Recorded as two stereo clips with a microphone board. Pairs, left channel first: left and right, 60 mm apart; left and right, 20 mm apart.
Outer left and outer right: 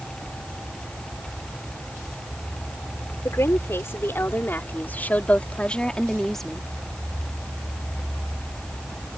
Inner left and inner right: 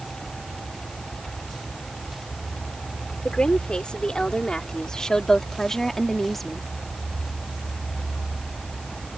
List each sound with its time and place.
3.2 s a woman speaking: 50° left (ahead or behind); by 6.6 s 5° left (ahead or behind)